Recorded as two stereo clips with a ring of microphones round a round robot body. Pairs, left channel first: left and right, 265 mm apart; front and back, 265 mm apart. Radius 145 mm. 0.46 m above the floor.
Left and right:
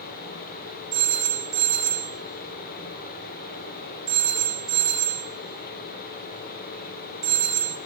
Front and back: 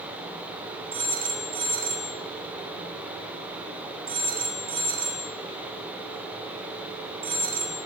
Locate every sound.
0.9 s a phone ringing: 110° right, 6 m